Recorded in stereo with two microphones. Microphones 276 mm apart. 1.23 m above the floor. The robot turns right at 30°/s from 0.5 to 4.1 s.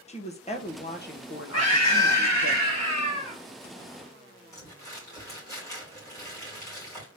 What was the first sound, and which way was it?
A woman speaking, 25° left.